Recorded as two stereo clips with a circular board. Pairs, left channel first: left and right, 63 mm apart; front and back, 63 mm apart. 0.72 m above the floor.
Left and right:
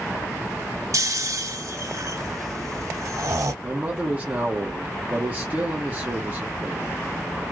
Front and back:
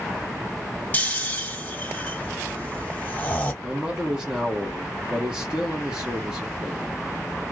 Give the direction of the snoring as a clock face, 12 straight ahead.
2 o'clock.